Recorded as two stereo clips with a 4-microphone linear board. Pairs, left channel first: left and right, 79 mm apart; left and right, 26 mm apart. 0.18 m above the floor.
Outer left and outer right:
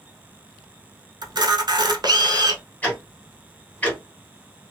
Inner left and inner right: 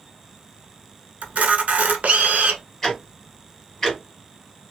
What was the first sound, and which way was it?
A camera shutter, 60° right (ahead or behind).